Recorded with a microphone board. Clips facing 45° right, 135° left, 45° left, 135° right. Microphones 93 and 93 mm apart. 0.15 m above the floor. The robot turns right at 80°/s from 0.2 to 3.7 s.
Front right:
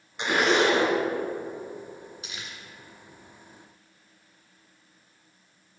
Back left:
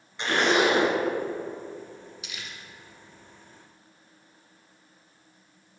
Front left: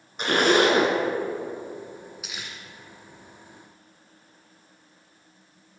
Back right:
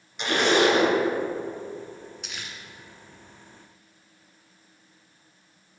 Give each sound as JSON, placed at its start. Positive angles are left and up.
{"t": 0.2, "sound": "a zipper", "azimuth_deg": 20, "distance_m": 1.6}
{"t": 2.2, "sound": "crumpling", "azimuth_deg": -35, "distance_m": 1.8}